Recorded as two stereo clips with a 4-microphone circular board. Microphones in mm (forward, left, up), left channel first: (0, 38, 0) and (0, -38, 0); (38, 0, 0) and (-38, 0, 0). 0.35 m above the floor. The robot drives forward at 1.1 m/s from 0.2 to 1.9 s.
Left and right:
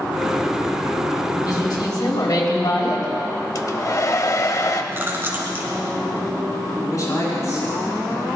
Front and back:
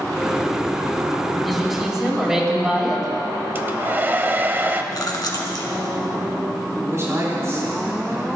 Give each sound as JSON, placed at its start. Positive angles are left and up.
{"t": 1.4, "sound": "a woman speaking", "azimuth_deg": 90, "distance_m": 3.5}
{"t": 3.5, "sound": "a hair dryer", "azimuth_deg": 120, "distance_m": 0.8}
{"t": 4.9, "sound": "chewing", "azimuth_deg": -30, "distance_m": 1.7}
{"t": 6.8, "sound": "a woman speaking", "azimuth_deg": 130, "distance_m": 5.5}